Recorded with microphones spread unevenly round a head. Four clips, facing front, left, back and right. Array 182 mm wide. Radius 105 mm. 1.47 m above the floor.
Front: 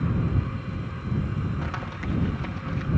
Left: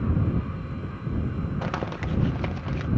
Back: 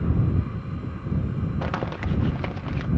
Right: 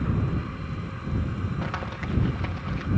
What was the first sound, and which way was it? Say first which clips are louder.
Crumpling: left 2 dB, back 4 dB; 145° left.